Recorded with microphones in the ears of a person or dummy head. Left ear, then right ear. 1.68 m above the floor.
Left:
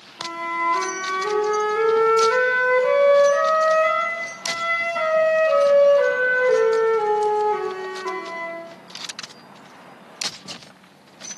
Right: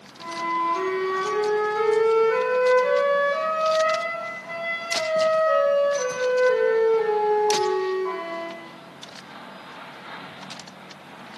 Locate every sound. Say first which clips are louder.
0.2 s a flute: left 1 dB; 75° left (ahead or behind), 6 m